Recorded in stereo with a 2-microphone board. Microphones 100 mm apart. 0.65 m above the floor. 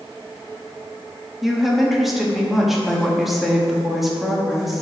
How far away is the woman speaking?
About 0.9 m.